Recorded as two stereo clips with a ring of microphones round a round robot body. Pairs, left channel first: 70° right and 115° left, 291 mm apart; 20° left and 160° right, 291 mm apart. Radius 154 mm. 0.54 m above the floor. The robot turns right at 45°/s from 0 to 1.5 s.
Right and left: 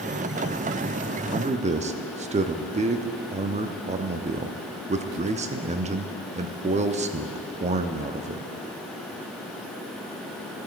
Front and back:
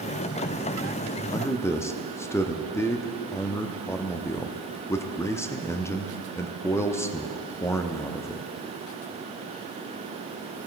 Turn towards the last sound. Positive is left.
turn(degrees=90)